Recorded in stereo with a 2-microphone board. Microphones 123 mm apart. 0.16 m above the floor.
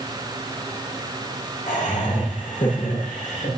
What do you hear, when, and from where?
1.7 s laughter: 80° left, 8.5 m; by 3.5 s 85° left, 10.5 m